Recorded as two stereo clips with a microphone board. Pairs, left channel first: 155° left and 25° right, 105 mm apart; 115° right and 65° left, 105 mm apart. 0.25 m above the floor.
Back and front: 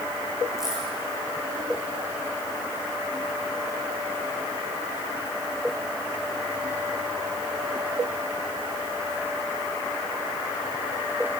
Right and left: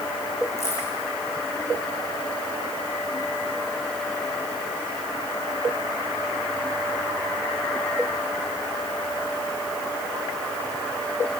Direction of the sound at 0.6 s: 110° right.